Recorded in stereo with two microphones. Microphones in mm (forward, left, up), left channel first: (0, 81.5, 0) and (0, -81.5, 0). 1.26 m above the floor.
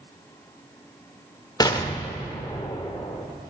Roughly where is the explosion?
Left.